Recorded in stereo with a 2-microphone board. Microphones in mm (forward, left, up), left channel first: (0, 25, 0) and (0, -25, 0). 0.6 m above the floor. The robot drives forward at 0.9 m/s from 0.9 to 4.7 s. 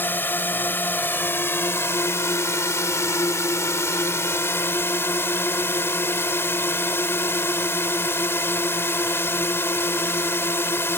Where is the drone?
40° left (ahead or behind); by 11.0 s 50° left (ahead or behind).